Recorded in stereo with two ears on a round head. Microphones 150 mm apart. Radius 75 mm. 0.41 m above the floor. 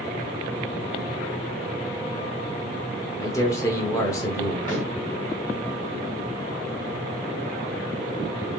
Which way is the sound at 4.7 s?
45° left (ahead or behind).